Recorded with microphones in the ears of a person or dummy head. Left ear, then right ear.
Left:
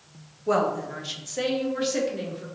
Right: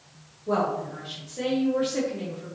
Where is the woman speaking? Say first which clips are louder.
Left 2 dB; 60° left (ahead or behind), 0.7 m; by 2.5 s 40° left (ahead or behind), 1.2 m.